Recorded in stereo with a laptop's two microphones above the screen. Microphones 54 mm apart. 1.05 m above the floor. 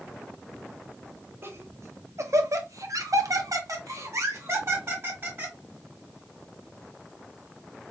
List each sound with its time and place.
1.4 s laughter: 45° right (ahead or behind), 1.6 m; by 5.5 s 40° right (ahead or behind), 1.9 m